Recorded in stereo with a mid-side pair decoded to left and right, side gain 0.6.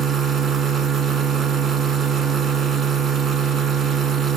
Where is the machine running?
40° right, 3.5 m.